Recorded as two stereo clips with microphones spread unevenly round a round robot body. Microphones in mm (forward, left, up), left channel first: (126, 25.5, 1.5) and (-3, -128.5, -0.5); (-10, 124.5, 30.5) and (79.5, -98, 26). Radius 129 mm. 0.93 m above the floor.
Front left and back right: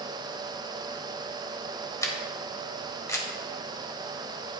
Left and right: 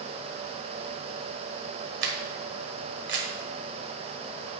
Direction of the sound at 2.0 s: 25° right.